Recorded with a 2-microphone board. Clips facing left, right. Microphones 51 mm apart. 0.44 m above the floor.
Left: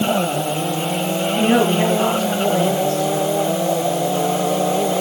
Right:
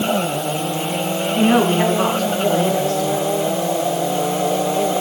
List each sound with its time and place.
1.4 s a woman speaking: 80° right, 6 m